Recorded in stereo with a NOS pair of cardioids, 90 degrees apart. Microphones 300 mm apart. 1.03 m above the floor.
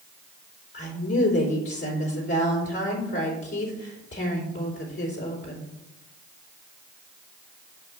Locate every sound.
0.7 s a woman speaking: 40° left, 3 m